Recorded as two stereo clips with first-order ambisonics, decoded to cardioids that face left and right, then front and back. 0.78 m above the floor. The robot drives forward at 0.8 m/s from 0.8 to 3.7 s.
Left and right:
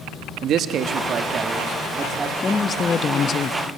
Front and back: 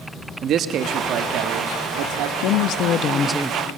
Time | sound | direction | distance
0.4 | a man speaking | 135° right | 0.9 m
2.4 | a woman speaking | 15° left | 0.9 m